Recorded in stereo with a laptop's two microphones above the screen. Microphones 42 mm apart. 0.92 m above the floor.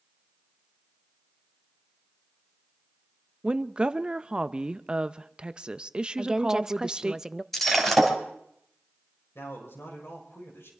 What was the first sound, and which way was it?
A woman speaking, 25° right (ahead or behind).